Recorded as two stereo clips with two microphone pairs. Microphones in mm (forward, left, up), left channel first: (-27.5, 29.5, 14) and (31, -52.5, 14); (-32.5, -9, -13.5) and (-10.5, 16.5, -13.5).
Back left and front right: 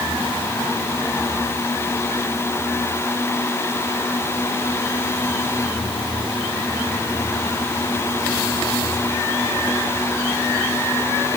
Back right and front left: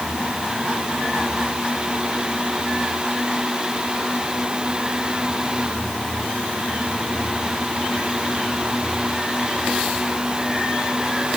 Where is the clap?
I don't hear a clap.